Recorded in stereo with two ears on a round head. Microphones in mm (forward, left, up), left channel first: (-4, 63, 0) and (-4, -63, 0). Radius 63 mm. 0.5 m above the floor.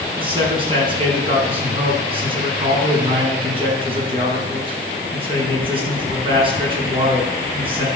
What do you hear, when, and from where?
0.2 s a man speaking: 40° right (ahead or behind), 5 m